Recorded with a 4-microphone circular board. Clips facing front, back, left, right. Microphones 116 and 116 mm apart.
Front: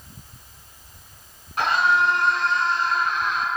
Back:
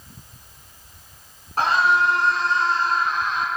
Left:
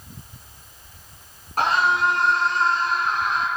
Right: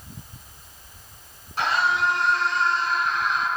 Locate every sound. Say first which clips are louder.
1.6 s a scream: back 1 dB, left 3 dB; 130° left, 8 m